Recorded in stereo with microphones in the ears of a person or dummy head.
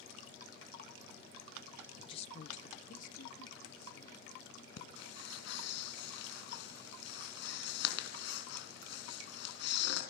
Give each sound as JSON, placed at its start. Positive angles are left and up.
{"t": 2.0, "sound": "a woman speaking", "side_deg": 25, "distance_m": 0.5}
{"t": 4.8, "sound": "breathing", "side_deg": 70, "distance_m": 4.5}